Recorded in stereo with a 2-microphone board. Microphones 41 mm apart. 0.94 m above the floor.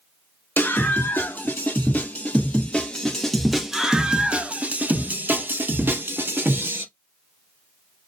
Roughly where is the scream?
Left.